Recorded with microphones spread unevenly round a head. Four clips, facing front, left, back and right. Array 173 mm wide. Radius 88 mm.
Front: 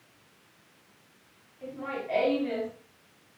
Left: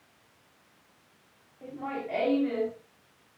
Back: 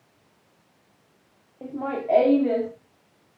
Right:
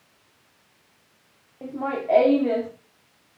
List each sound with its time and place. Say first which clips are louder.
1.6 s laughter: right 8 dB, back 7 dB; 145° right, 2 m; by 2.7 s 125° right, 1.8 m